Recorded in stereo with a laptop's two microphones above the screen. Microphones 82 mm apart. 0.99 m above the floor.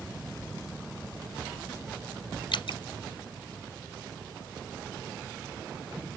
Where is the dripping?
80° left.